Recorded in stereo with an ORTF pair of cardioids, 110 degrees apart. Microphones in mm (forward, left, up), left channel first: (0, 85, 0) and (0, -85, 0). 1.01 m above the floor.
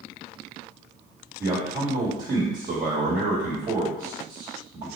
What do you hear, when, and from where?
1.4 s a man speaking: 45° right, 1.2 m